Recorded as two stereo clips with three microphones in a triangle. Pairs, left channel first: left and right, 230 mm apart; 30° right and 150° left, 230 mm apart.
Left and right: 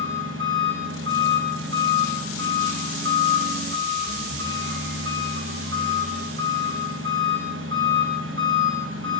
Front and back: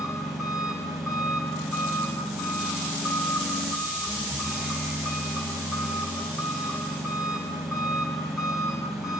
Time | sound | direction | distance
0.0 | an engine running | 120° right | 9 m